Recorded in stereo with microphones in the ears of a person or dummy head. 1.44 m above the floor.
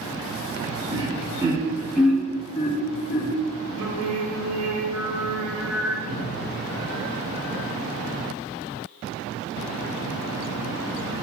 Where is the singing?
85° right, 0.8 m.